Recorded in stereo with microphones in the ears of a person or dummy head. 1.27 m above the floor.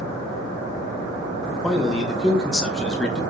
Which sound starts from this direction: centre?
A man speaking, at 1.6 s.